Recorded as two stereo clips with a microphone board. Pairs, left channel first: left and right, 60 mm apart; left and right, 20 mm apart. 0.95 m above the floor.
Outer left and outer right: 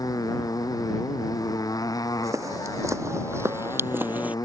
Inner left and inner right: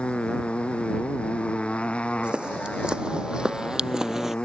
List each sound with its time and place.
0.0 s a motorcycle: 90° left; by 4.5 s 85° left
2.2 s footsteps: 60° right (ahead or behind); by 4.3 s 25° right (ahead or behind)